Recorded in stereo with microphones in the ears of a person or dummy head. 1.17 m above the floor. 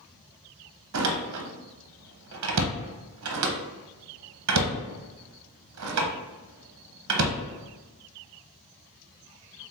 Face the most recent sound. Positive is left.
turn(degrees=-75)  # may be behind; listen again after turning